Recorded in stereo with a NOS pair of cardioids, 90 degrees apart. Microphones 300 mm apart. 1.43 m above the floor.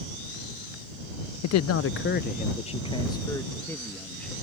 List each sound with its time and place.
1.4 s a man speaking: 65° left; by 4.3 s 5° left